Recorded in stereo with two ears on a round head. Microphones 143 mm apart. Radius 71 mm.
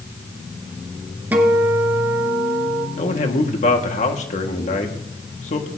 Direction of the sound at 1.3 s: 10° right (ahead or behind).